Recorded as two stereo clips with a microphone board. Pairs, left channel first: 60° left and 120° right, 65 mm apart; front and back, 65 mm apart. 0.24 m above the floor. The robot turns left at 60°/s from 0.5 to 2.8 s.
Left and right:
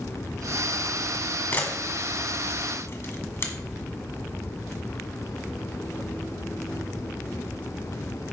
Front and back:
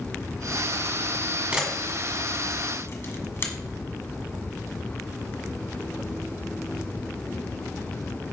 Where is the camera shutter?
110° left, 1.7 m; by 3.5 s 30° left, 1.7 m.